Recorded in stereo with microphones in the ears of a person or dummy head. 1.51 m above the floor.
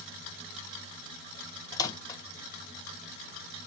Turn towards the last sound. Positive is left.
turn(degrees=20)  # may be behind; listen again after turning